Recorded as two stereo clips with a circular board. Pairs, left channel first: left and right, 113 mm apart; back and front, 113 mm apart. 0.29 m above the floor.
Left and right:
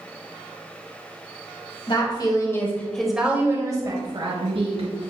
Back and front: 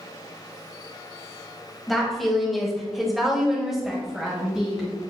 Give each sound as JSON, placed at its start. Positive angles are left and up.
{"t": 1.9, "sound": "a woman speaking", "azimuth_deg": 90, "distance_m": 1.5}